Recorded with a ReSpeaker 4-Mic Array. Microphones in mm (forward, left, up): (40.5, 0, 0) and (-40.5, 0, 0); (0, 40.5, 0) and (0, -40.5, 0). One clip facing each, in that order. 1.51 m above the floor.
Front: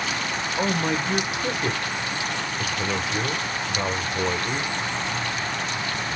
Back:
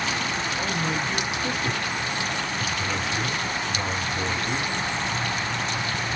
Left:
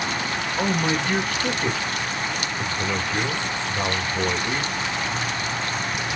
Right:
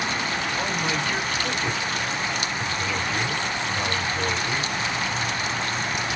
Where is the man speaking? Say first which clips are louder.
Front 6 dB, left 7 dB; 35° left, 1.4 m.